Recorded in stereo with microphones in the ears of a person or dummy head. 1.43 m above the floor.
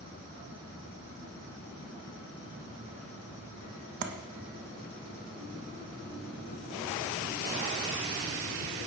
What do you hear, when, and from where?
4.0 s tapping: 70° right (ahead or behind), 0.5 m